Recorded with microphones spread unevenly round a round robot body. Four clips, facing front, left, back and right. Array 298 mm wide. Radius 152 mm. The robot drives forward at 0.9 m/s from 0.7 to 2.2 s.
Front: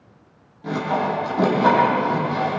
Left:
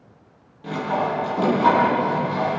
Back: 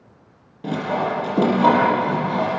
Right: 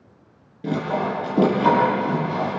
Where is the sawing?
115° right, 7 m; by 2.6 s 125° right, 7.5 m.